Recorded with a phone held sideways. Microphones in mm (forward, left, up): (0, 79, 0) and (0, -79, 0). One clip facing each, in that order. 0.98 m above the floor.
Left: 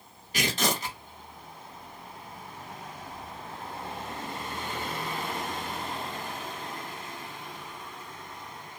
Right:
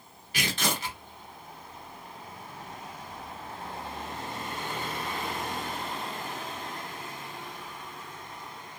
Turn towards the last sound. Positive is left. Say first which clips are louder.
# left 3 dB
turn(degrees=40)  # may be behind; listen again after turning